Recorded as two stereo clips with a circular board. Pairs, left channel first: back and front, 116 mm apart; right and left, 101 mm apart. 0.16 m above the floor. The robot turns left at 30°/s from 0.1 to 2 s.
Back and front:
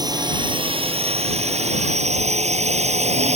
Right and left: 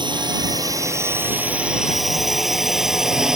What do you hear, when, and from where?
0.0 s a drone: 55° left; by 3.4 s 5° left